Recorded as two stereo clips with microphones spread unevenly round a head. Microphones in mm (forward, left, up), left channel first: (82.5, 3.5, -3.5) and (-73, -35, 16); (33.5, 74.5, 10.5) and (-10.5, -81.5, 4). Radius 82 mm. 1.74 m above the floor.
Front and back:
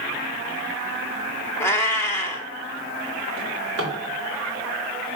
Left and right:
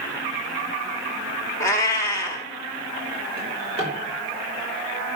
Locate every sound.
1.6 s a cat meowing: 80° left, 1.3 m
3.4 s a drawer: 160° right, 4 m